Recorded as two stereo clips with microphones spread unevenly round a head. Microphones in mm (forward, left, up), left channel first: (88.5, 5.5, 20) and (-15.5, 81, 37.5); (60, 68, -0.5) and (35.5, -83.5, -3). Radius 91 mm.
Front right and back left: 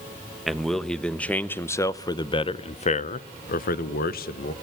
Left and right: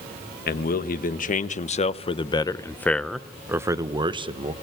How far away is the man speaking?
About 1.6 m.